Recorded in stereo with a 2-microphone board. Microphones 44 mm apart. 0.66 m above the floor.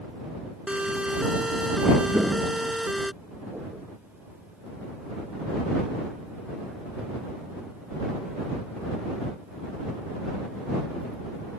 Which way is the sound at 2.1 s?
20° right (ahead or behind).